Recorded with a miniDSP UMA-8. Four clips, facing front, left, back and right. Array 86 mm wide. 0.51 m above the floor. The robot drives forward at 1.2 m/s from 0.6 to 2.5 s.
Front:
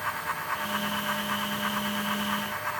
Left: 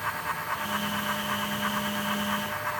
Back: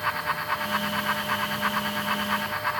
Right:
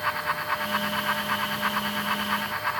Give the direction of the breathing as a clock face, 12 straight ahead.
I don't hear breathing.